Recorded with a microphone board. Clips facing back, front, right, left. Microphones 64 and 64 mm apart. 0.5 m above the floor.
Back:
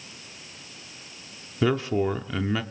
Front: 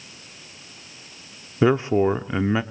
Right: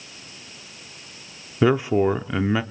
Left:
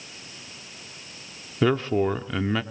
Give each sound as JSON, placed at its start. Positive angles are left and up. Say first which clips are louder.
{"t": 1.6, "sound": "a man speaking", "louder": "front 5 dB, right 3 dB", "azimuth_deg": -30, "distance_m": 0.7}